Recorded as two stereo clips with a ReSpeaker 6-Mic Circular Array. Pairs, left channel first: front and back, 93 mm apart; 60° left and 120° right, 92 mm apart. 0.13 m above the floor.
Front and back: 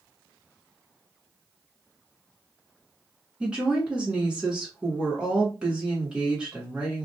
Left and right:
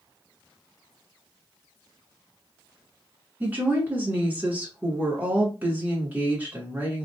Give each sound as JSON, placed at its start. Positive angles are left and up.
{"t": 3.4, "sound": "a woman speaking", "azimuth_deg": -125, "distance_m": 1.0}